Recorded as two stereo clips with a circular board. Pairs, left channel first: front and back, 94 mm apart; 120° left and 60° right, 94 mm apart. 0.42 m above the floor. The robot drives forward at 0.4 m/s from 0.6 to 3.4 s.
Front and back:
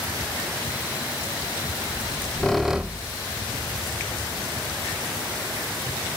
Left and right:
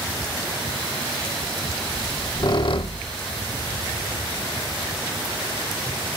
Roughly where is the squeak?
Ahead left.